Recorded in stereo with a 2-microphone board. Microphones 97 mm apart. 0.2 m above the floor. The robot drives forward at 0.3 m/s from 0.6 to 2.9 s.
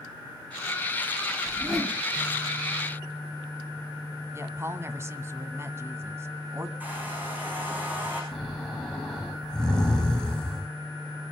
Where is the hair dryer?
20° right (ahead or behind), 9 m.